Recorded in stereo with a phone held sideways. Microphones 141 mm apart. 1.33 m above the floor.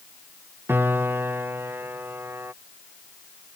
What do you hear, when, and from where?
0.7 s a piano: 15° right (ahead or behind)